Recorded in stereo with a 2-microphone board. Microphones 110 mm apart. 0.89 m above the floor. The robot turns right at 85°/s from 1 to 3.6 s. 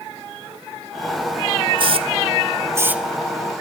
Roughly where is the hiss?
Right.